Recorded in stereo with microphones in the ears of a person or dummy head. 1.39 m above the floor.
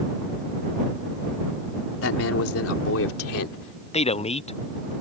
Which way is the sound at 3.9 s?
20° left (ahead or behind).